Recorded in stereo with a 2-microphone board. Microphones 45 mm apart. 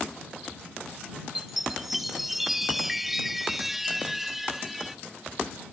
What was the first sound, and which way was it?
A chime, 5° right (ahead or behind).